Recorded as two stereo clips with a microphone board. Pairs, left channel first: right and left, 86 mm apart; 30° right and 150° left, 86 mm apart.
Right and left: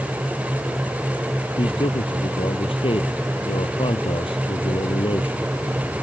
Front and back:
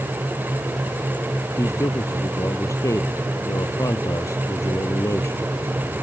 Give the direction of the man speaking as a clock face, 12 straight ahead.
3 o'clock.